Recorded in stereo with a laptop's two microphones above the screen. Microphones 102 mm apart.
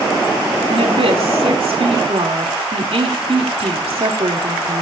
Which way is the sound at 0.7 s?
80° right.